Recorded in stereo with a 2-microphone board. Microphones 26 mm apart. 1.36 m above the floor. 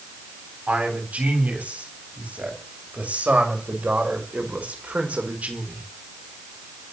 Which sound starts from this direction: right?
A man speaking, at 0.7 s.